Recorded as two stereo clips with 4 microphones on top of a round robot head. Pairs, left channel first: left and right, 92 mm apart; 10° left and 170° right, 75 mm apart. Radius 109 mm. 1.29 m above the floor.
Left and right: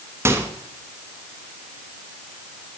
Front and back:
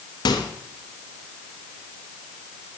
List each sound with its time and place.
0.2 s a microwave: 25° right, 1.4 m